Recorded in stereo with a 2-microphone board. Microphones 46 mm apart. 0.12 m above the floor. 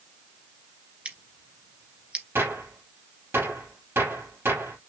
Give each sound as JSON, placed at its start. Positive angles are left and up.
{"t": 1.1, "sound": "scissors", "side_deg": -25, "distance_m": 1.8}
{"t": 2.4, "sound": "a gunshot", "side_deg": -60, "distance_m": 3.5}